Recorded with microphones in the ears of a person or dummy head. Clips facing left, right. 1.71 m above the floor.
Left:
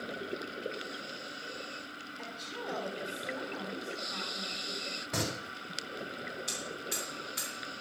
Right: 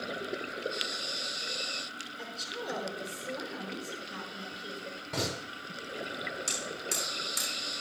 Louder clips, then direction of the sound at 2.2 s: Right 2 dB; 40° right (ahead or behind).